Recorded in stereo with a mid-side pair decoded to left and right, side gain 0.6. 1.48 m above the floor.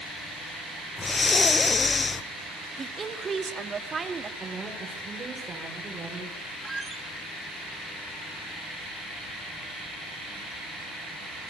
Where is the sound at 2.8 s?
30° right, 3 m.